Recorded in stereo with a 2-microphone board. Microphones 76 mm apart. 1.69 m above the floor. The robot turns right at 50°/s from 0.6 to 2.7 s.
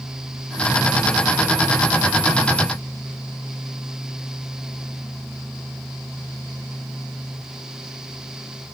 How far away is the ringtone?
No ringtone in this recording.